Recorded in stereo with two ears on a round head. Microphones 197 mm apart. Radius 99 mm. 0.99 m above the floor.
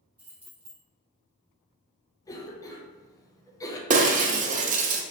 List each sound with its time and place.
0.2 s keys jangling: 10° right (ahead or behind), 1.7 m
2.2 s a cough: 15° left (ahead or behind), 0.6 m
3.9 s breaking glass: 35° right (ahead or behind), 0.5 m